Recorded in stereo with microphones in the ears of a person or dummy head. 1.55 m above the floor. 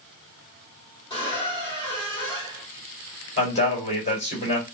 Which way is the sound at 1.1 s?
25° left (ahead or behind).